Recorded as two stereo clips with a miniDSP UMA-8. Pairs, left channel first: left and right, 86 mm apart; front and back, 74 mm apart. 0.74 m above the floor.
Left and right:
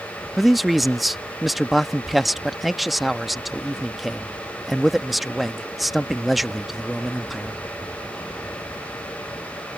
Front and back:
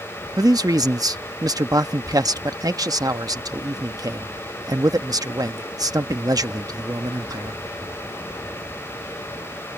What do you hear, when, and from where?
0.4 s a man speaking: straight behind